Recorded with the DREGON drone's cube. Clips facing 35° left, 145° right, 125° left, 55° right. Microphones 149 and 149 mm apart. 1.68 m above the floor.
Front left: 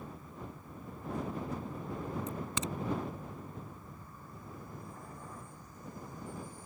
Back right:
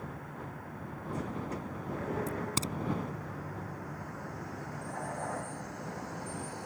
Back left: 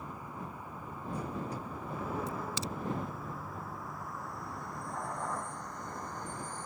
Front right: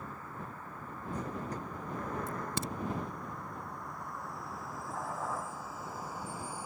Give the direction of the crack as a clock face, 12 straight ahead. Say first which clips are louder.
Back right 3 dB, even; 3 o'clock.